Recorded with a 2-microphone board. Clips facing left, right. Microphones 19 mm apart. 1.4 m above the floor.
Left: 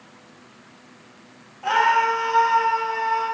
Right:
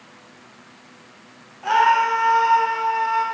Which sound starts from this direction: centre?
A scream, at 1.6 s.